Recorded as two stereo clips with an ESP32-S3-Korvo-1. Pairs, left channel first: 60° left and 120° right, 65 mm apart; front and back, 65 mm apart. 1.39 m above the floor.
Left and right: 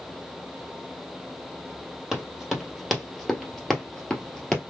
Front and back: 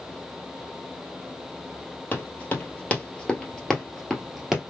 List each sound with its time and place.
2.1 s running footsteps: 45° right, 1.6 m; by 4.6 s 115° left, 1.4 m